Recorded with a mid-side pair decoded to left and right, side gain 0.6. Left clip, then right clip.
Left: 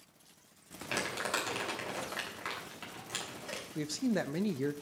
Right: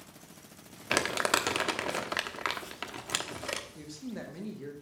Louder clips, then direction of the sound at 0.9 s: Right 7 dB; 50° right.